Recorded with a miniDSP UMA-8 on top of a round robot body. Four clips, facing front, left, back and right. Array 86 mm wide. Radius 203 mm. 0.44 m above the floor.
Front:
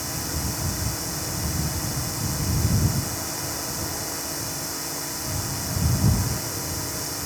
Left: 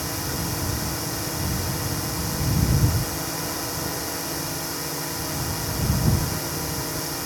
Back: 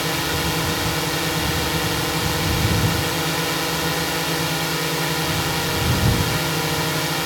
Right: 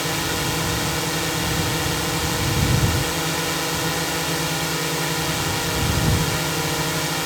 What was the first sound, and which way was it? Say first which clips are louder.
A drone: right 5 dB, back 9 dB; 145° right.